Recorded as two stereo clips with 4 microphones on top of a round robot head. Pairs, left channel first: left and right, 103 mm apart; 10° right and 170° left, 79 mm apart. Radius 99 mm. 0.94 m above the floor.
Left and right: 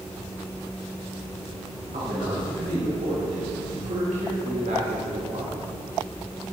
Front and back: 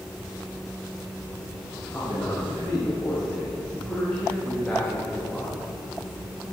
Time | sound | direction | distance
1.9 | a man speaking | 80° right | 5 m